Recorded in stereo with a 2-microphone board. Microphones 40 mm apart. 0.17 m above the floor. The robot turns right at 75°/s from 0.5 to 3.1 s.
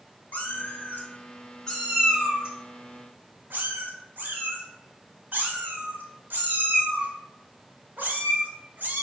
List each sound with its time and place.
0.3 s a cat meowing: 50° left (ahead or behind), 1.1 m; by 9.0 s 55° right (ahead or behind), 1.1 m